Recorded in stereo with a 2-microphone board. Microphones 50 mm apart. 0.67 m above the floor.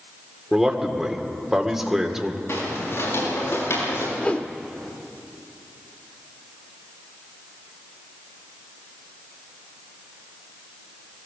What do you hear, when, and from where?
0.5 s a man speaking: 10° right (ahead or behind), 2 m
2.5 s footsteps: 60° left (ahead or behind), 9 m; by 4.1 s 65° left (ahead or behind), 8 m
4.2 s a whoosh: 30° left (ahead or behind), 0.8 m